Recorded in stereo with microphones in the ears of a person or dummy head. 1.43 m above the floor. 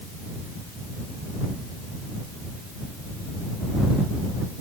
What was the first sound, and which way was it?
Only background noise.